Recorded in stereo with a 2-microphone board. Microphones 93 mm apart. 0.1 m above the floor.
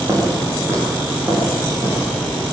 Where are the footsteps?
25° right (ahead or behind), 9 m; by 2.5 s 35° right (ahead or behind), 10.5 m.